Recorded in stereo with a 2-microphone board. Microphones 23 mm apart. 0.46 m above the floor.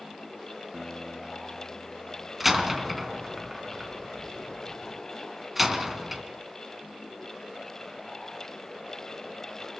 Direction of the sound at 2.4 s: 5° right (ahead or behind).